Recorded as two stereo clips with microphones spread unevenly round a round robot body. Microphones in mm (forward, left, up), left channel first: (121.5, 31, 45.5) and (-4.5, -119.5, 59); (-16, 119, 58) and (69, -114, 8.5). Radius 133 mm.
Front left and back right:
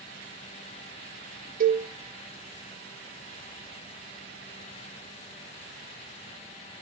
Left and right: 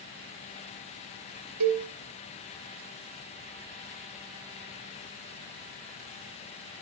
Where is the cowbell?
85° right, 3 m.